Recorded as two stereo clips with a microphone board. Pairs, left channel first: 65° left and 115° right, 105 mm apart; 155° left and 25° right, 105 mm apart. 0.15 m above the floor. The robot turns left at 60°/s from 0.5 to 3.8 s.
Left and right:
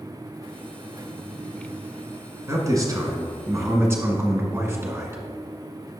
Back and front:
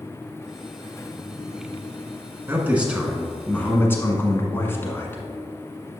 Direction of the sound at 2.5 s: 70° right.